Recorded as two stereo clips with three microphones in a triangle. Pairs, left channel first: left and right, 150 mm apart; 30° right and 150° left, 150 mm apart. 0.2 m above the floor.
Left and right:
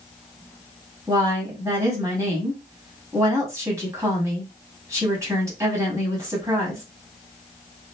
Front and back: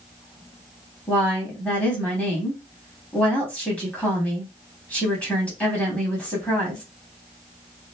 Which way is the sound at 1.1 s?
95° right.